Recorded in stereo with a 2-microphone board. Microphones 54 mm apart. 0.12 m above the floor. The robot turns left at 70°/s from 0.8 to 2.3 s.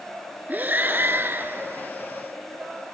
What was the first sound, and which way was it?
Breathing, 60° right.